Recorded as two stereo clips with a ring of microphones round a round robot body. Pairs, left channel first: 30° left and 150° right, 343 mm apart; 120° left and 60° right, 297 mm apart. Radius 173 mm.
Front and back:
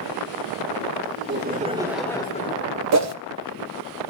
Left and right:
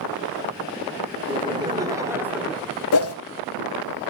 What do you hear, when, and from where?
1.2 s laughter: 125° right, 1.8 m; by 2.8 s 30° left, 1.7 m
2.9 s a whoosh: 165° left, 0.9 m